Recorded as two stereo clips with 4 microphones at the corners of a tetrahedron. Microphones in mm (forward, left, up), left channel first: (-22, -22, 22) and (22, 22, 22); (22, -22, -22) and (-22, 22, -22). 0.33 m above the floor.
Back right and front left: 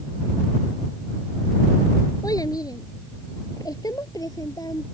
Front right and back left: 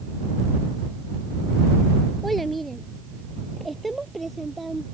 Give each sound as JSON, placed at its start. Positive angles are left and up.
{"t": 2.2, "sound": "a child speaking", "azimuth_deg": -130}